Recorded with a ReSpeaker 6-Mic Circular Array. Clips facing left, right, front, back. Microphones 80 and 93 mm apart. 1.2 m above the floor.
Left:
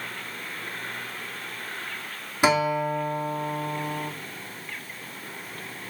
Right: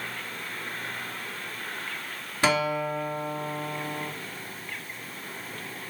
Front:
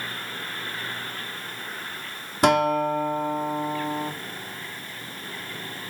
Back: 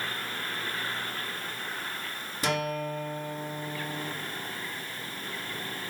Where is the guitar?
15° left, 2.0 m.